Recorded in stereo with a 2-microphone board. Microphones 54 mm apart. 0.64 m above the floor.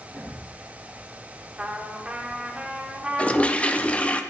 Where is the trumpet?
20° right (ahead or behind), 1.0 m.